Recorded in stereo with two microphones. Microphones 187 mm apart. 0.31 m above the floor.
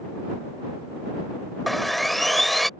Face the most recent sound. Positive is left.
turn(degrees=0)  # may be behind; listen again after turning